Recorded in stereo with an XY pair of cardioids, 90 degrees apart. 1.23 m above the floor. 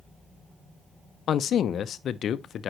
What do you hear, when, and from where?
1.3 s a man speaking: 70° left, 0.6 m